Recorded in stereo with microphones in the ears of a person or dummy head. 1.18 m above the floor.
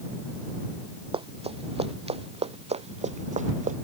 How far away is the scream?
No scream in this recording.